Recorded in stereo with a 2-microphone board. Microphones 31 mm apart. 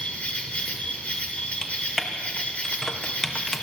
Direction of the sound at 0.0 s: 55° left (ahead or behind).